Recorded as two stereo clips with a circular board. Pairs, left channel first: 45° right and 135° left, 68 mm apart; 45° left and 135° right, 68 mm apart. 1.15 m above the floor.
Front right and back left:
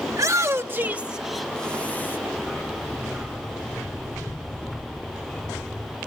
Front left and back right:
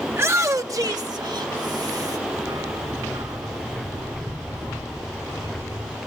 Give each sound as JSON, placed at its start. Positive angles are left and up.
{"t": 0.1, "sound": "a shout", "azimuth_deg": 170, "distance_m": 2.0}
{"t": 2.4, "sound": "a dog barking", "azimuth_deg": -130, "distance_m": 4.0}